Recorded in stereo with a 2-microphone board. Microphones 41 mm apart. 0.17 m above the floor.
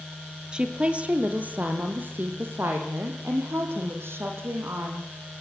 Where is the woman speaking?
25° right (ahead or behind), 3.5 m; by 5.1 s 75° right (ahead or behind), 8 m.